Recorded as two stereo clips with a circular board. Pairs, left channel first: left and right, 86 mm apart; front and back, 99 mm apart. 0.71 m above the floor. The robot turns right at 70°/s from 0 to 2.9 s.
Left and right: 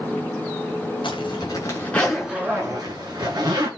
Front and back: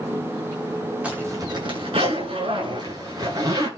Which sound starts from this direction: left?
A zipper, at 1.0 s.